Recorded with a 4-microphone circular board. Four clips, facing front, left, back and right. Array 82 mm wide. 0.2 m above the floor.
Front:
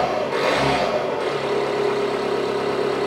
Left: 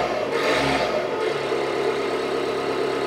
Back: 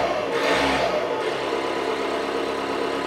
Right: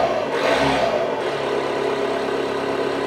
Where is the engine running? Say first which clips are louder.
Right 3 dB, front 2 dB; 70° right, 2 m.